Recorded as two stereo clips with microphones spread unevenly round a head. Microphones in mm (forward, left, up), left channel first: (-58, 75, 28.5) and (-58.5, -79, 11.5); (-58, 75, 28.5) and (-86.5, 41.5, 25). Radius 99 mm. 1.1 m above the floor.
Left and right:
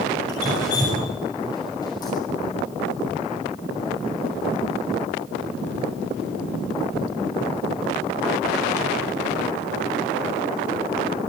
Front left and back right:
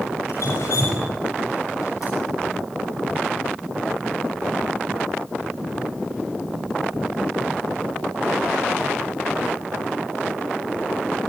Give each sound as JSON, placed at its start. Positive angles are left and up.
{"t": 0.3, "sound": "dripping", "azimuth_deg": 20, "distance_m": 6.0}